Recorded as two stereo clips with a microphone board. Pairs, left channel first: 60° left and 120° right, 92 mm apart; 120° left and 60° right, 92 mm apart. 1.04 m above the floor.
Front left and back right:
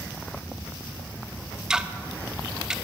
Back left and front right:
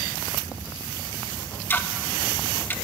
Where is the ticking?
165° left, 0.5 m.